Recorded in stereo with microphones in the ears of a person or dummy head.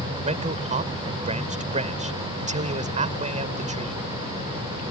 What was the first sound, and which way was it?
A man speaking, 30° right (ahead or behind).